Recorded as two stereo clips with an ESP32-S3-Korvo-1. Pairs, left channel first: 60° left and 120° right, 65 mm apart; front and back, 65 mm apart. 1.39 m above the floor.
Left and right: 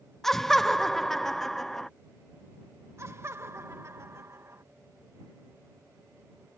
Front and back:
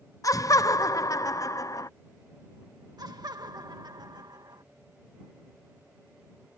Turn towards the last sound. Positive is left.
turn(degrees=-170)